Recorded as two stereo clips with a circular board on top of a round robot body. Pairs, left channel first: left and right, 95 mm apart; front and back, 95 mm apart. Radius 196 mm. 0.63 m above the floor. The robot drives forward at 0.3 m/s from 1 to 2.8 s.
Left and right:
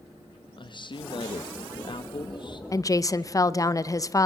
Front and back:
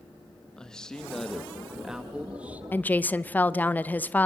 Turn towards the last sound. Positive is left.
turn(degrees=60)